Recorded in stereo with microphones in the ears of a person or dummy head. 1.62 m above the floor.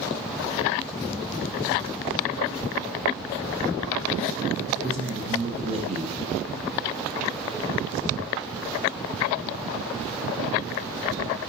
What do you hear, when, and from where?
4.7 s a man speaking: 30° right (ahead or behind), 1.1 m